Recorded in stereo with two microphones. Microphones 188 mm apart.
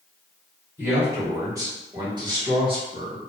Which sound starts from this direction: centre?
A man speaking, at 0.8 s.